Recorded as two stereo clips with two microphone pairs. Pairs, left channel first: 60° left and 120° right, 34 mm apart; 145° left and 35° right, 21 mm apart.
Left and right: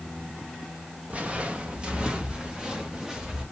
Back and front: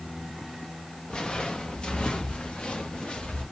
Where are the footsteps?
175° right, 1.6 m; by 3.4 s 165° left, 3 m.